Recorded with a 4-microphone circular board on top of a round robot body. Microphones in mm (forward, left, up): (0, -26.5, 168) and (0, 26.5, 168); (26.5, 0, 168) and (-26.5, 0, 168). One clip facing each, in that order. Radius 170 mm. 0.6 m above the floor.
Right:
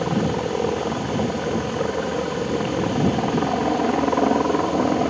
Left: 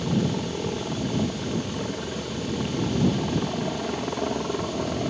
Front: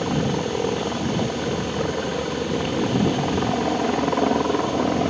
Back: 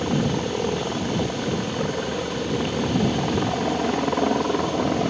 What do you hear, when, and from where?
0.0 s a helicopter: 80° right